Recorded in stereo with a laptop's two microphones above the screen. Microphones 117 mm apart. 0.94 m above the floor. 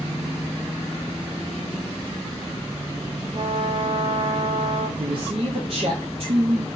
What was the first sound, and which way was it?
A trumpet, 55° right (ahead or behind).